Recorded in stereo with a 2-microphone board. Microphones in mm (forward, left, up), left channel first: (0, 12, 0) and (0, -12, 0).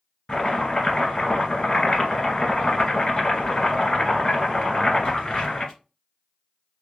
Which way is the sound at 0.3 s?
35° left (ahead or behind).